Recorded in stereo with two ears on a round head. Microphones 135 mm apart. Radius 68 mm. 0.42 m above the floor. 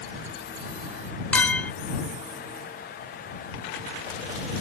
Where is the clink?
10° left (ahead or behind).